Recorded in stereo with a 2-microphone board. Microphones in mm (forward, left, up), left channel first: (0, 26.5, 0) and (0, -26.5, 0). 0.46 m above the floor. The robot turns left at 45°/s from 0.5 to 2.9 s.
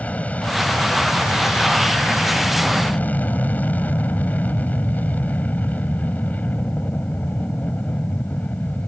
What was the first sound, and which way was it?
An aircraft, 145° left.